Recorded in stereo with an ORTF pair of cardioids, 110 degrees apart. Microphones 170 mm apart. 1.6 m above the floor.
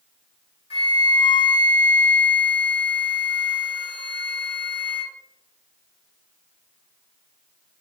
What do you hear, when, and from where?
0.7 s a flute: 30° left, 1.6 m